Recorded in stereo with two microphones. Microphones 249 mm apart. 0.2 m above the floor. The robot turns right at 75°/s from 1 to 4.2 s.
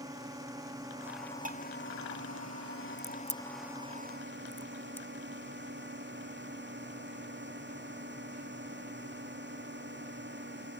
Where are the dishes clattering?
30° right (ahead or behind); by 1.6 s 45° right (ahead or behind).